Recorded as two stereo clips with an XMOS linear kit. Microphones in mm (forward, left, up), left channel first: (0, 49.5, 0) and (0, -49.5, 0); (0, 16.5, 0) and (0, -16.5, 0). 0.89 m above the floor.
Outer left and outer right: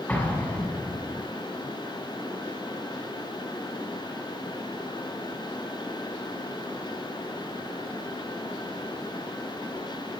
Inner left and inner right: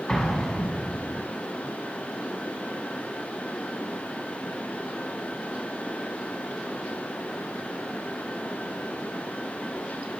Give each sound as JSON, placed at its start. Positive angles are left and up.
{"t": 0.1, "sound": "an explosion", "side_deg": 15, "distance_m": 5.5}